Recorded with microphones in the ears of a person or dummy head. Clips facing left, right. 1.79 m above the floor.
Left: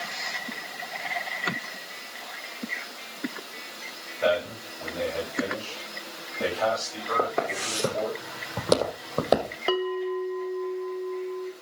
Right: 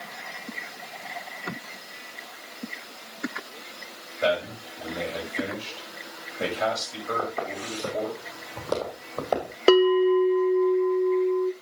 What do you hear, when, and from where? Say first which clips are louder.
4.2 s a man speaking: left 1 dB; 35° right (ahead or behind), 7.5 m
7.2 s footsteps: left 3 dB; 65° left (ahead or behind), 5.5 m; by 9.6 s 55° left (ahead or behind), 3 m
9.7 s a bell: right 10 dB; 60° right (ahead or behind), 0.8 m